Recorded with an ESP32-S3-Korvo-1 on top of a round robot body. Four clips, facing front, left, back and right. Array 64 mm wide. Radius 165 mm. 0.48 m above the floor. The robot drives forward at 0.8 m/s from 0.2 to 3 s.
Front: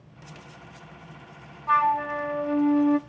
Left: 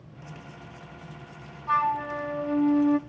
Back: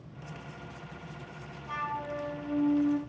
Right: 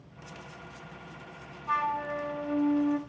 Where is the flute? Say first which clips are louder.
Left 4 dB, front 13 dB; 5° left, 1.7 m; by 3.0 s 20° left, 0.7 m.